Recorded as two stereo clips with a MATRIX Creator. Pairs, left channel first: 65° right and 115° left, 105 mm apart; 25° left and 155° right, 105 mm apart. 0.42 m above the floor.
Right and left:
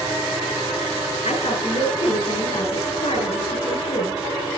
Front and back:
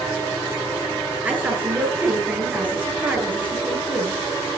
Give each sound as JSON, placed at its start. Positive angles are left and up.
{"t": 1.2, "sound": "a woman speaking", "azimuth_deg": -80, "distance_m": 8.5}